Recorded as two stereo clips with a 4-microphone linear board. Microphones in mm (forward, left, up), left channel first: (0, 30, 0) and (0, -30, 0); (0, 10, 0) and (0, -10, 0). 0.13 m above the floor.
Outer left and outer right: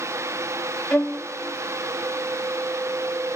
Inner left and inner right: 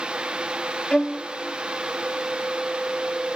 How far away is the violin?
About 3 m.